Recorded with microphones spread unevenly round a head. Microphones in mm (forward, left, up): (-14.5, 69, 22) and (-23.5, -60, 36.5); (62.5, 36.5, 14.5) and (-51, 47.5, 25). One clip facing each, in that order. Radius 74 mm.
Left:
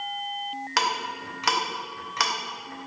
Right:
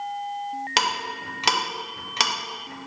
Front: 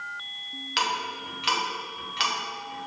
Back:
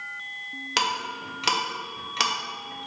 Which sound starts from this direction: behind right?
Ticking, at 0.8 s.